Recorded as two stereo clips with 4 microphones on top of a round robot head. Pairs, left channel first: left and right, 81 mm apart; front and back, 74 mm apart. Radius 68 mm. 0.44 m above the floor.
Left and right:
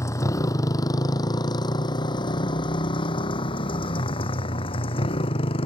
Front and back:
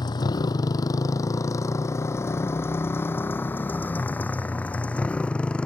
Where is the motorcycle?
35° left; by 5.7 s 80° left.